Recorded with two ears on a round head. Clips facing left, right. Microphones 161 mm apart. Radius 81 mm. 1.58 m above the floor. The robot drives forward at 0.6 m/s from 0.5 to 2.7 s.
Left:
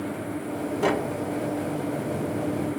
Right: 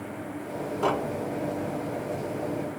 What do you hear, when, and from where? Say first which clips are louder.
0.8 s tapping: left 2 dB; 15° left (ahead or behind); by 2.8 s 5° left (ahead or behind)